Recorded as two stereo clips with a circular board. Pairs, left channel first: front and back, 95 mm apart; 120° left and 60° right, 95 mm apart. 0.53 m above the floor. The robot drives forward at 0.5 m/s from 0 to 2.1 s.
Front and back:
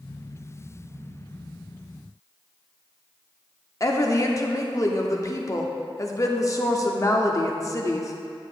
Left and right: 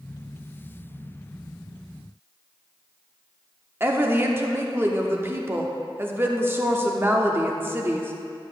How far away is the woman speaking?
About 0.7 m.